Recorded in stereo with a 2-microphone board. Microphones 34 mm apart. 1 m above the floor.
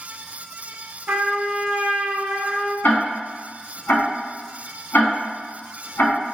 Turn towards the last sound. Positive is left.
turn(degrees=70)  # may be behind; listen again after turning